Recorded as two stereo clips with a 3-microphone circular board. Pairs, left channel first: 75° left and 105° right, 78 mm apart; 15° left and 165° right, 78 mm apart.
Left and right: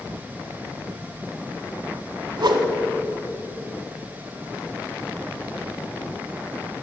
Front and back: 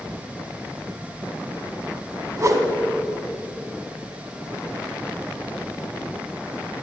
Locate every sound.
2.4 s a whoosh: 120° right, 0.6 m